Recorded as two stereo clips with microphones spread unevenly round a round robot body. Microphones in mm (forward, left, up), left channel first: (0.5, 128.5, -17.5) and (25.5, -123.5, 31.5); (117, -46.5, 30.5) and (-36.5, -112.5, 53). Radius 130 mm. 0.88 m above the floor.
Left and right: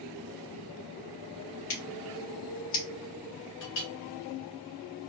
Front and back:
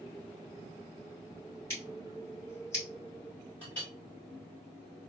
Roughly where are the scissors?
Left.